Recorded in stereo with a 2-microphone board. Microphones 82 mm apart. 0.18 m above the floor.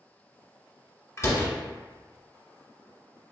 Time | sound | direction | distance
1.2 | a door slam | 40° left (ahead or behind) | 1.2 m